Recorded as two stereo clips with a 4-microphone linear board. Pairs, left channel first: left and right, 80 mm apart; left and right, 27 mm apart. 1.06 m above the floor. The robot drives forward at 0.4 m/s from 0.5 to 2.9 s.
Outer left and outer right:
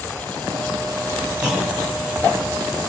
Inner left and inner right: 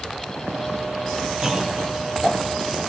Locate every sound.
1.4 s a clunk: 10° right (ahead or behind), 3.5 m; by 1.8 s 15° right (ahead or behind), 3.5 m